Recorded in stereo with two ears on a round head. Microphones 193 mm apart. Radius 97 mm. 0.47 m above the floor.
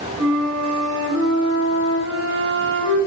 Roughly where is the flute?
Right.